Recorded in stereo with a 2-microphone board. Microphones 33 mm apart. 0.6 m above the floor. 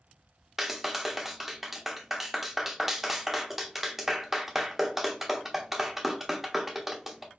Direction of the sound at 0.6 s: 5° right (ahead or behind).